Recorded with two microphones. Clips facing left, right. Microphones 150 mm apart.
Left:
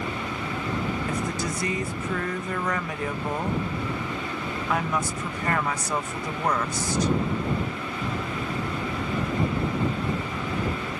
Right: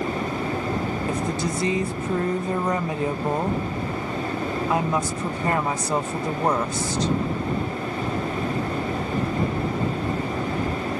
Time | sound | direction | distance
1.1 | a woman speaking | 25° right (ahead or behind) | ?